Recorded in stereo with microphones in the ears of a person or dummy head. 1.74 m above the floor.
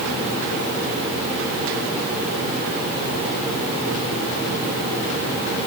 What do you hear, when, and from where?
Only background noise.